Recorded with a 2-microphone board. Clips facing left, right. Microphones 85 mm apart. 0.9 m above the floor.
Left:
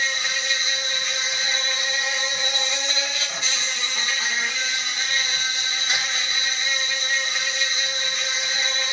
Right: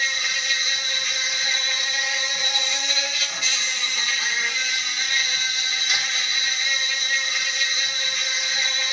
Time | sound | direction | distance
0.0 | an insect | 30° left (ahead or behind) | 2 m